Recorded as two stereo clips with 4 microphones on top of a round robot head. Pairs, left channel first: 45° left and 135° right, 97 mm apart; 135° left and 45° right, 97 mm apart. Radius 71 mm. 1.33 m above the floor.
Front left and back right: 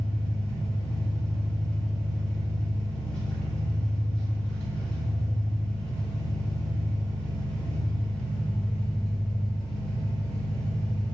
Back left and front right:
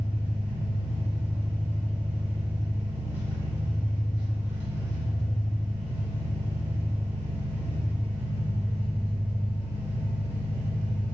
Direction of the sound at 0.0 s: 20° right.